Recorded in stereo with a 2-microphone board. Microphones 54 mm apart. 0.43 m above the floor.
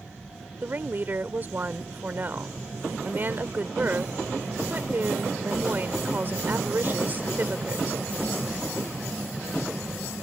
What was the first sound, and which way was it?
A woman speaking, 40° right (ahead or behind).